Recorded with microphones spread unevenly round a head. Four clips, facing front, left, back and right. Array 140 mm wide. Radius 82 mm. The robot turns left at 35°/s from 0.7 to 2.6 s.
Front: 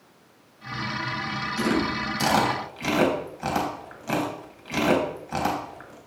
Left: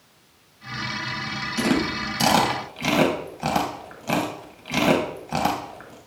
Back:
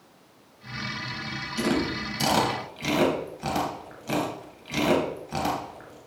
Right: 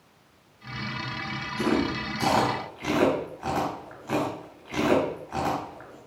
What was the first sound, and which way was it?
Chewing, 120° left.